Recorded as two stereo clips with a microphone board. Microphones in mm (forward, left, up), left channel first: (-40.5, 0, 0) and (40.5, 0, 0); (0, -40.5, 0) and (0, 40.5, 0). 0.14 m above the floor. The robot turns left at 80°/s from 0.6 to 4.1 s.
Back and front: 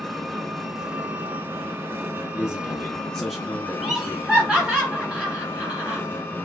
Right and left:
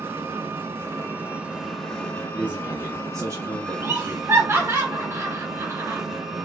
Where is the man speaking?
165° left, 1.5 m; by 4.8 s 25° left, 1.5 m.